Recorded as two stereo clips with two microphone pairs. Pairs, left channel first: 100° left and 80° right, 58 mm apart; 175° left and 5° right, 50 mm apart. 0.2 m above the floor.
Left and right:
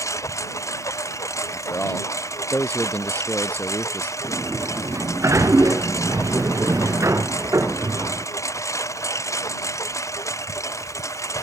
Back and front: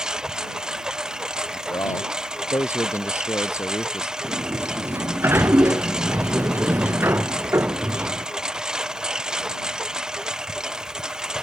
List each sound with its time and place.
0.0 s a lawn mower: 70° left
1.5 s a man speaking: 165° left
4.2 s a sliding door: 45° right